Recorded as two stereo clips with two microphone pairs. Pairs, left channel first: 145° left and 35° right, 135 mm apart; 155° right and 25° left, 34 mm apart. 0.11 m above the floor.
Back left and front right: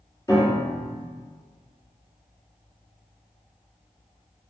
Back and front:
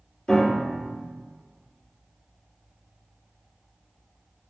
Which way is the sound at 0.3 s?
175° left.